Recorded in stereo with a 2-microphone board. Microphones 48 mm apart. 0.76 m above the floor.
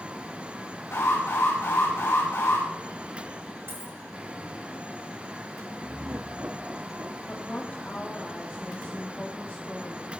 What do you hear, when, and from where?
0.9 s an alarm: 80° left, 9.5 m
3.7 s a dropped coin: 65° right (ahead or behind), 4.5 m
5.8 s laughter: 50° right (ahead or behind), 1.3 m
7.3 s a woman speaking: 35° left (ahead or behind), 1.7 m